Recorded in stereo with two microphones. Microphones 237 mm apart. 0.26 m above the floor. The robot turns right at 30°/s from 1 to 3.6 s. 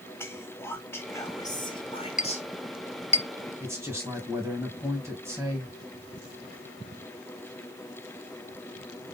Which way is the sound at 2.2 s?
35° left (ahead or behind).